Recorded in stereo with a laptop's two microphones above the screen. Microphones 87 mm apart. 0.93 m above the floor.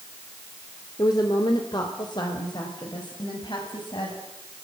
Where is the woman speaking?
50° left (ahead or behind), 2 m; by 4.2 s 65° left (ahead or behind), 5.5 m.